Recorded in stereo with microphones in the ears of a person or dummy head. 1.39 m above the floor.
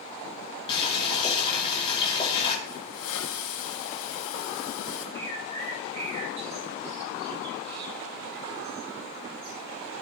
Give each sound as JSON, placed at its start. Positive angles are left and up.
{"t": 0.7, "sound": "boiling", "side_deg": 30, "distance_m": 4.5}
{"t": 2.6, "sound": "a hiss", "side_deg": 90, "distance_m": 6.0}
{"t": 5.2, "sound": "a bird", "side_deg": -35, "distance_m": 3.5}